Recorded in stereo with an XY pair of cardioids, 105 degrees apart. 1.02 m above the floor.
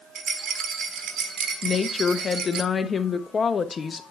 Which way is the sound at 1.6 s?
30° left.